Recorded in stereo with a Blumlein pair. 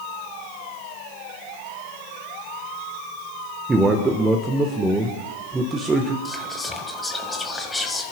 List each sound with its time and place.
3.7 s a man speaking: 15° right, 1.2 m
6.2 s whispering: 10° left, 1.7 m